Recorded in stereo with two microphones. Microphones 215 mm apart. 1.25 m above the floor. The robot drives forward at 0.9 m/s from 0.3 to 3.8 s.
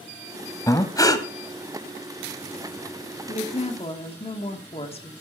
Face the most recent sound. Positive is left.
turn(degrees=25)  # may be behind; listen again after turning